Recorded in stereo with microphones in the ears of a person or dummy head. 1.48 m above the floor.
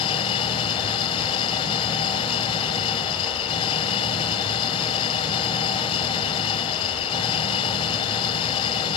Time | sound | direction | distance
0.0 | an engine running | 25° left (ahead or behind) | ?